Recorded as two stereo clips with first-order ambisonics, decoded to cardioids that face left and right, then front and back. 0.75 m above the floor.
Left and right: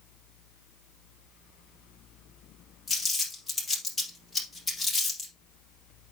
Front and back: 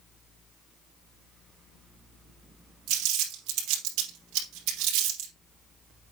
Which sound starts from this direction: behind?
Crumpling, at 2.9 s.